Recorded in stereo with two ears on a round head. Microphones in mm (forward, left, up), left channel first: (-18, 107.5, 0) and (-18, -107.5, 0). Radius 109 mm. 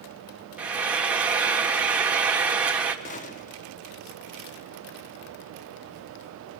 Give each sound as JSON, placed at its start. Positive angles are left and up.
{"t": 0.6, "sound": "frying", "side_deg": -5, "distance_m": 1.9}
{"t": 3.0, "sound": "a gunshot", "side_deg": 30, "distance_m": 1.0}